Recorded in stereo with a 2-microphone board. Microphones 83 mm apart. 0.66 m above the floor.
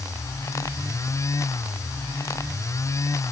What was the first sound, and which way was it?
Only background noise.